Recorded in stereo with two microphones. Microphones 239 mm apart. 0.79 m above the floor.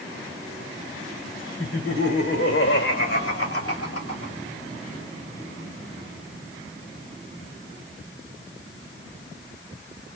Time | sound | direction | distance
1.6 | laughter | 60° left (ahead or behind) | 3.5 m